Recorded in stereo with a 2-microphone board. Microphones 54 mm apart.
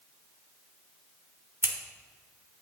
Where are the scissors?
50° right (ahead or behind), 1.1 m.